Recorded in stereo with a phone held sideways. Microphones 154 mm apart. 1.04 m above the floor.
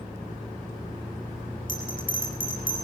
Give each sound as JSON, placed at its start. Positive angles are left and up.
{"t": 1.7, "sound": "a bell", "side_deg": 65, "distance_m": 7.5}